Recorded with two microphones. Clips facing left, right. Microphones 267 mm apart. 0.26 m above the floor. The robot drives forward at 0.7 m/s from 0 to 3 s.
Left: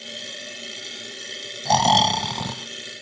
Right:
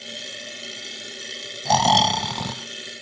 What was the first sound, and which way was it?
Snoring, centre (ahead or behind).